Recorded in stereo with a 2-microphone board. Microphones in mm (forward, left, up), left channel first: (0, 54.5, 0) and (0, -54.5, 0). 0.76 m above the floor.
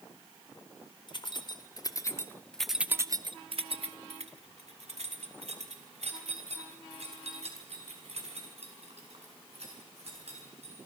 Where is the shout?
I don't hear a shout.